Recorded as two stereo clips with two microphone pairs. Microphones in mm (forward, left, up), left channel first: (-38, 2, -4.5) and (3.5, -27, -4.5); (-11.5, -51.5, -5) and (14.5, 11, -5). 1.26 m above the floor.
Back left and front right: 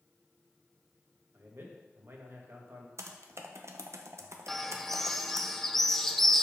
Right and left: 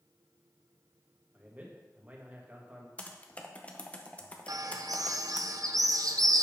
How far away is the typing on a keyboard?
About 0.9 m.